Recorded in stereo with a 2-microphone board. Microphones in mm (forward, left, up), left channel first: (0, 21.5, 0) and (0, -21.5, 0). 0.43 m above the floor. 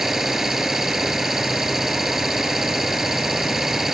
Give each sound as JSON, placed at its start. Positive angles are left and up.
{"t": 0.0, "sound": "an engine running", "side_deg": -10}